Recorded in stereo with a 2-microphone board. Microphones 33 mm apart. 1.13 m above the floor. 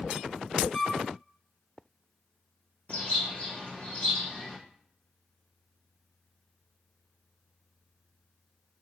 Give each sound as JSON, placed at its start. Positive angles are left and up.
{"t": 0.7, "sound": "a flute", "side_deg": 65, "distance_m": 1.7}
{"t": 2.9, "sound": "a bird", "side_deg": 55, "distance_m": 1.3}